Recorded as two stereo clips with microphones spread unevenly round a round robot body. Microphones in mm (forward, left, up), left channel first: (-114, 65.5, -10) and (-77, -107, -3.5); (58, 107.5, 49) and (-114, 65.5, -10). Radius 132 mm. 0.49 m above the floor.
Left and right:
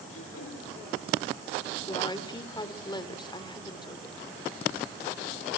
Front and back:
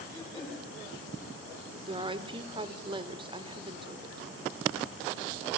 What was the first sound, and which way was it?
Throat clearing, 85° left.